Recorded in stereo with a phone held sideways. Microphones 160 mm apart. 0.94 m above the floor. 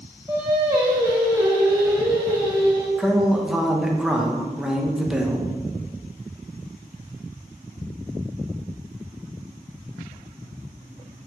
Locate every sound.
0.3 s singing: 25° right (ahead or behind), 1.5 m
3.0 s a man speaking: 5° right (ahead or behind), 0.8 m